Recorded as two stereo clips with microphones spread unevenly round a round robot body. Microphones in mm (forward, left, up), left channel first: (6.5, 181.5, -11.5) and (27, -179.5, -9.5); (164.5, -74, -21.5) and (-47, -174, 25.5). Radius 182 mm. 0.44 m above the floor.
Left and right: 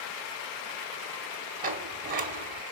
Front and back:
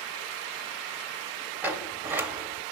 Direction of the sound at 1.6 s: 55° right.